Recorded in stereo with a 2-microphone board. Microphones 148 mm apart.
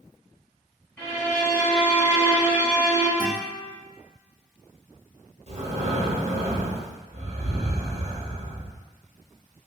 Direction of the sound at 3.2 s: 40° left (ahead or behind).